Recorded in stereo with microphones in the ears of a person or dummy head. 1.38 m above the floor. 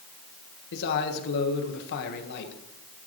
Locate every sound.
0.7 s a man speaking: 60° left (ahead or behind), 1.3 m